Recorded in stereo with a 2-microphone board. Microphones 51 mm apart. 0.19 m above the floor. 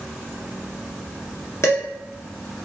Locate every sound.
1.6 s dishes clattering: 60° left (ahead or behind), 1.7 m